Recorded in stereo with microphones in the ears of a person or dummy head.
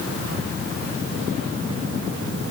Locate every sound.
Only background noise.